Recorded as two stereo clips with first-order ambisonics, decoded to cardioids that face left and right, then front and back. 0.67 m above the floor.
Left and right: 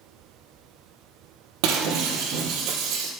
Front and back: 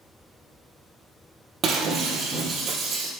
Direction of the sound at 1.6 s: 110° right.